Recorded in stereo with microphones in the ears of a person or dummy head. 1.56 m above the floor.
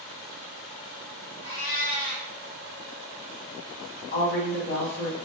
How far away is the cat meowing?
About 1.4 m.